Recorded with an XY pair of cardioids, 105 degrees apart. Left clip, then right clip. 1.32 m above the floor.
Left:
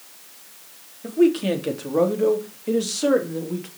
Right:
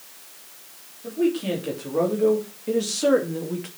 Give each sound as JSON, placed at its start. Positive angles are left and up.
{"t": 1.0, "sound": "a man speaking", "azimuth_deg": 50, "distance_m": 3.5}